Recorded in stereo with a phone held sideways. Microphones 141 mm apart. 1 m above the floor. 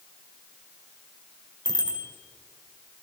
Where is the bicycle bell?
30° right (ahead or behind), 3.5 m.